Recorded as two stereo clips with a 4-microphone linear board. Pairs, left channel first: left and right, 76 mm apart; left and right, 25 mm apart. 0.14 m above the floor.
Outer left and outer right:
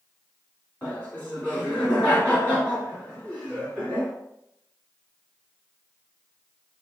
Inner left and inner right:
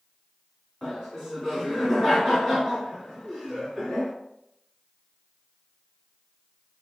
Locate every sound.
0.8 s laughter: 20° left (ahead or behind), 1.8 m